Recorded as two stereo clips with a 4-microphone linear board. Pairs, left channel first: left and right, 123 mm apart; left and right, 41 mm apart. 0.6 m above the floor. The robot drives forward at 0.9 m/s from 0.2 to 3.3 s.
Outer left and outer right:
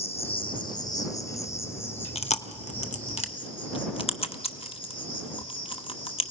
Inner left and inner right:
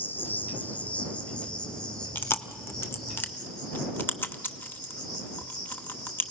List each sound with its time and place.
0.0 s an insect: 55° left (ahead or behind), 0.9 m; by 6.3 s 10° left (ahead or behind), 3.5 m
2.1 s chewing: 55° left (ahead or behind), 0.9 m